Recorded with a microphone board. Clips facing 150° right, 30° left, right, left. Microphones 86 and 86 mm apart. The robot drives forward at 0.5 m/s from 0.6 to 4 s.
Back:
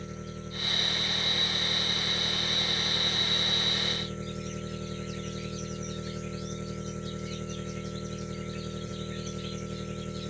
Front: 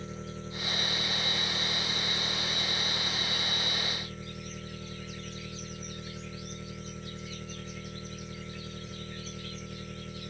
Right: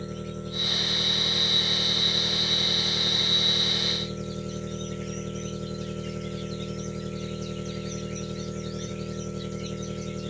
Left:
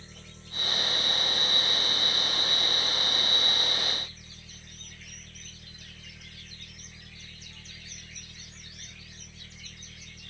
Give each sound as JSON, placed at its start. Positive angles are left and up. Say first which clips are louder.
{"t": 0.0, "sound": "an engine running", "louder": "even, right 16 dB", "azimuth_deg": -60}